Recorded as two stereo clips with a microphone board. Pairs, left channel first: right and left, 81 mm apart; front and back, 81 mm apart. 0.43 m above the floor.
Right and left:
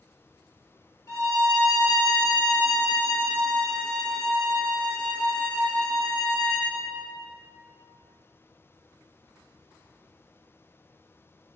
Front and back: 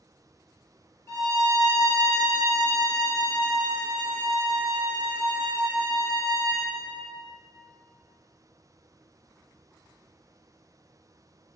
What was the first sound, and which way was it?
A violin, 50° right.